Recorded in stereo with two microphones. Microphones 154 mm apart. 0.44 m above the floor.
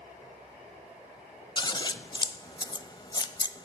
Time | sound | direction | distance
1.6 | scissors | 30° left (ahead or behind) | 0.6 m